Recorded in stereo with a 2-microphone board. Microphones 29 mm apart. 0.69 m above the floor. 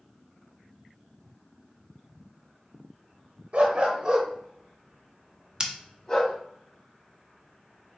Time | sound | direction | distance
3.5 | a dog barking | 50° right (ahead or behind) | 0.8 m
5.6 | scissors | 30° right (ahead or behind) | 0.7 m